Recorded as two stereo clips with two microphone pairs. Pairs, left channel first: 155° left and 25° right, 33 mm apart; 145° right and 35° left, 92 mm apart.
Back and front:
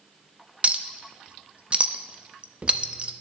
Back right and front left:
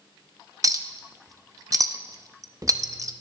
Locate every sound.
0.6 s a clink: 5° left, 0.6 m